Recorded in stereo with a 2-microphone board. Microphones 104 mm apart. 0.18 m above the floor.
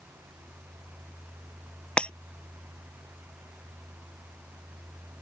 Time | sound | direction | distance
2.0 | breaking glass | 10° left (ahead or behind) | ?